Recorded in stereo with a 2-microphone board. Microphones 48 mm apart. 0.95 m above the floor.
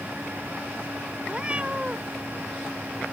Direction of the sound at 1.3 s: 30° right (ahead or behind).